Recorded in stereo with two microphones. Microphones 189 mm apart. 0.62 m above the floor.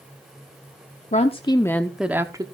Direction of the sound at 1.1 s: 40° left (ahead or behind).